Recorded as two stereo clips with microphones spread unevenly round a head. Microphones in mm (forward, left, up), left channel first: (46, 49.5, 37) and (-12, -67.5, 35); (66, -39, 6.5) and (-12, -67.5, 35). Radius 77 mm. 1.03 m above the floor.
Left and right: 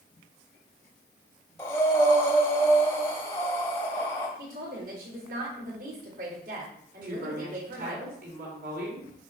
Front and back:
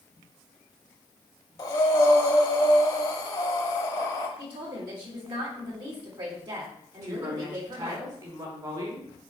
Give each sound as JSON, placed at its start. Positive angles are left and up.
{"t": 1.6, "sound": "breathing", "azimuth_deg": 40, "distance_m": 0.8}
{"t": 4.4, "sound": "a woman speaking", "azimuth_deg": -130, "distance_m": 3.0}
{"t": 7.0, "sound": "a woman speaking", "azimuth_deg": -120, "distance_m": 4.0}